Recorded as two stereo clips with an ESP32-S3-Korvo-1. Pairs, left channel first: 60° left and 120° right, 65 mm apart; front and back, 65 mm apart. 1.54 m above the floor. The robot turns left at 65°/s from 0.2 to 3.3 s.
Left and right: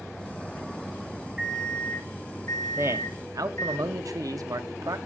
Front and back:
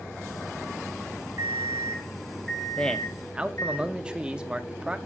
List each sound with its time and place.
1.4 s an alarm clock: 160° left, 2 m; by 3.8 s 35° left, 2 m
2.8 s a man speaking: 70° right, 0.8 m; by 5.0 s 105° right, 0.8 m